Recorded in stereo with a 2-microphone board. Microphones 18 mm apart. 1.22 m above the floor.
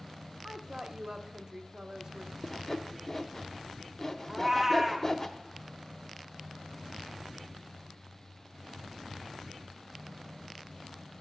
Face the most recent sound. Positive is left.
turn(degrees=-20)  # may be behind; listen again after turning